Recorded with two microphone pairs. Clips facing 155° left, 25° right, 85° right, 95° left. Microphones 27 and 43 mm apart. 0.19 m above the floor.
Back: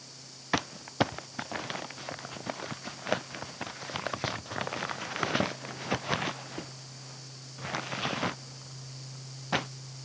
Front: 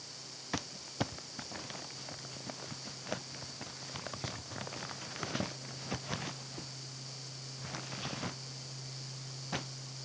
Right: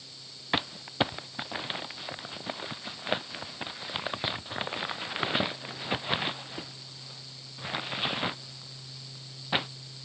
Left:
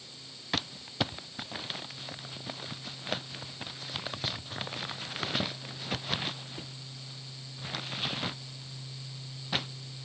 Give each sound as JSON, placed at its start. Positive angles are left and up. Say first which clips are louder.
{"t": 0.5, "sound": "crumpling", "louder": "back 9 dB, right 4 dB", "azimuth_deg": -155}